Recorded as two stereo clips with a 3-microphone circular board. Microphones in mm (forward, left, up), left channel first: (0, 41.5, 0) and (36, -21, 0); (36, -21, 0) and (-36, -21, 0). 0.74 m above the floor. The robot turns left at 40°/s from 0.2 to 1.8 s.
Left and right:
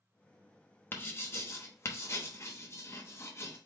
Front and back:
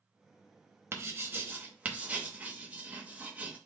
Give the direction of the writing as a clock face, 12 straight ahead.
7 o'clock.